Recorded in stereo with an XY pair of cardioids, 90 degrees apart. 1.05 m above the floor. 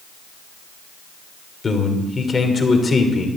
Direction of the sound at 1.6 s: 35° left.